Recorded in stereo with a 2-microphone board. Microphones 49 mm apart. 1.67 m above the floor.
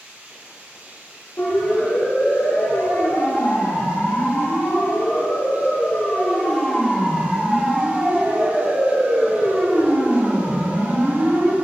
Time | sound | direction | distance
0.0 | running water | 35° right (ahead or behind) | 5.5 m
1.4 | a siren | 80° left | 6 m